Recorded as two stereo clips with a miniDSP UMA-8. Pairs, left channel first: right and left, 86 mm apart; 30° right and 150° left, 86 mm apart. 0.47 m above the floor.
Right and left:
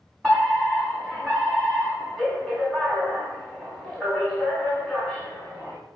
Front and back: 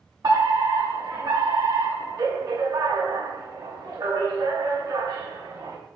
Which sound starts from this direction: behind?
A fire alarm, at 0.2 s.